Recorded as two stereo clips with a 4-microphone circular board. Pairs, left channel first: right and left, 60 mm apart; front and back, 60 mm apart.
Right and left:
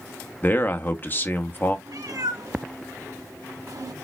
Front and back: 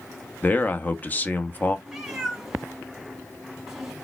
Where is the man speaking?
50° right, 0.6 m.